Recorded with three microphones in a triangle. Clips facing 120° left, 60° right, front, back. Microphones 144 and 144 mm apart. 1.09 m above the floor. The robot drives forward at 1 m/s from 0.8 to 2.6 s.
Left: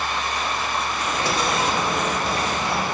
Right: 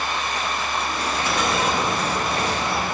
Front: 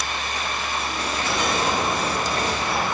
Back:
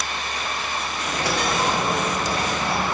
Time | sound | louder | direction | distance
1.0 | a dropped coin | even, back 2 dB | 175° left | 1.3 m